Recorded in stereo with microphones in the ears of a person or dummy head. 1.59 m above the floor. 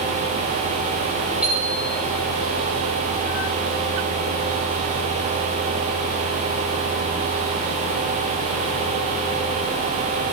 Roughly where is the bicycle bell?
Centre.